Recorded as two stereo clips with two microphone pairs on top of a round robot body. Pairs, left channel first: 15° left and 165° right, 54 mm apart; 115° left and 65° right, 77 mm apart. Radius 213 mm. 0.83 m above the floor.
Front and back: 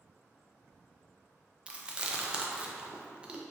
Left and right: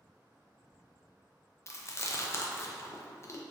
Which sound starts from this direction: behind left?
Chewing, at 1.7 s.